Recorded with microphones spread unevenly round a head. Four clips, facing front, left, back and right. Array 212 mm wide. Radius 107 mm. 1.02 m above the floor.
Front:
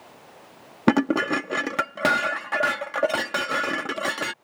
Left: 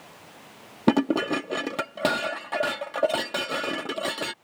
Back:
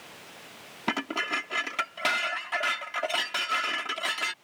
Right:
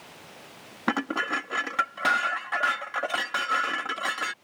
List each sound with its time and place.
0.9 s dishes clattering: 40° left